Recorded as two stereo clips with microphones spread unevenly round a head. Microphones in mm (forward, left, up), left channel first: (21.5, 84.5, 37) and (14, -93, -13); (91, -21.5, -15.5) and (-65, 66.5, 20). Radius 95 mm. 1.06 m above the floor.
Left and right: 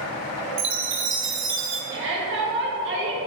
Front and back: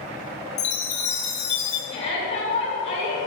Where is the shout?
90° right, 2.0 m.